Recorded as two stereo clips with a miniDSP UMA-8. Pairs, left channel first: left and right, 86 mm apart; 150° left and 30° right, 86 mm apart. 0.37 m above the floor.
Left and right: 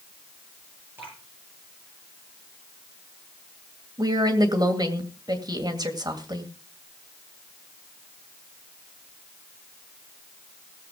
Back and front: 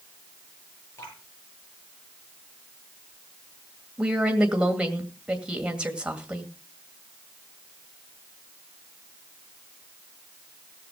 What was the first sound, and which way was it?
Dripping, 150° right.